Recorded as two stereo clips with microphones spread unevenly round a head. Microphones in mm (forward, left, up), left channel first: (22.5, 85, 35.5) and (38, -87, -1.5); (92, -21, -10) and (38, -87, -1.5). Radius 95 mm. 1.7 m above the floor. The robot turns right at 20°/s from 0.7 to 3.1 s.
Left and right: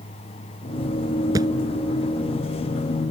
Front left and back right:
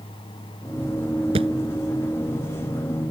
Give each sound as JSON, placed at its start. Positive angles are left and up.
{"t": 1.4, "sound": "a thud", "azimuth_deg": -160}